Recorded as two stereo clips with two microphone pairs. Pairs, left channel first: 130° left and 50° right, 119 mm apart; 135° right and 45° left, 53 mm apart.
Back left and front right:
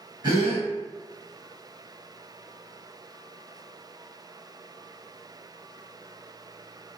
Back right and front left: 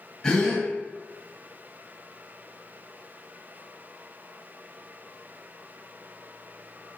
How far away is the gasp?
About 1.5 m.